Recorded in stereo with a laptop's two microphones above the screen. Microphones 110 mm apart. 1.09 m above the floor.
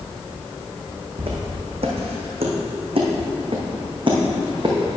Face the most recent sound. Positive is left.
turn(degrees=-40)  # may be behind; listen again after turning